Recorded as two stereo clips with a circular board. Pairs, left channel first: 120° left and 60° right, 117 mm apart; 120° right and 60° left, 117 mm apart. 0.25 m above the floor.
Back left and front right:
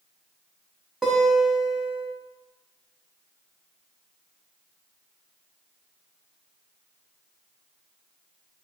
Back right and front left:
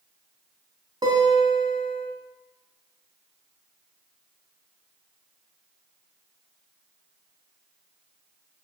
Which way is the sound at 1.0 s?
25° left.